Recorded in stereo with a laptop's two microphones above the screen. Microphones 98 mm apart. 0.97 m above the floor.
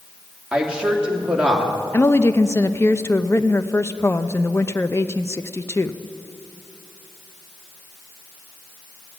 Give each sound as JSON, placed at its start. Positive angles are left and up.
{"t": 0.5, "sound": "a woman speaking", "side_deg": -10, "distance_m": 2.5}
{"t": 1.9, "sound": "a woman speaking", "side_deg": 25, "distance_m": 0.6}